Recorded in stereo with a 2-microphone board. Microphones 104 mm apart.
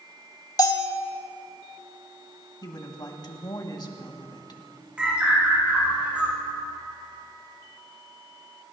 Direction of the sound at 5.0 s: 10° right (ahead or behind).